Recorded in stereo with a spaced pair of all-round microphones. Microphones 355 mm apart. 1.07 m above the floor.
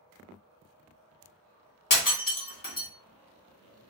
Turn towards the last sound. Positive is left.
turn(degrees=65)  # may be behind; listen again after turning